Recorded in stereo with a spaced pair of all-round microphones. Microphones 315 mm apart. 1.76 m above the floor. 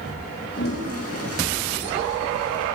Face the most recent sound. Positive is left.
turn(degrees=50)  # may be behind; listen again after turning